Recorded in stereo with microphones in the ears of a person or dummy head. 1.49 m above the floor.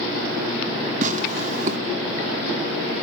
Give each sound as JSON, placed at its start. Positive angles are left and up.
{"t": 1.0, "sound": "tearing paper", "side_deg": -45, "distance_m": 2.5}